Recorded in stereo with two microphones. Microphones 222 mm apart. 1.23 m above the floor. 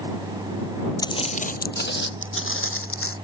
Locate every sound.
1.0 s footsteps: 15° left (ahead or behind); by 3.1 s 65° left (ahead or behind)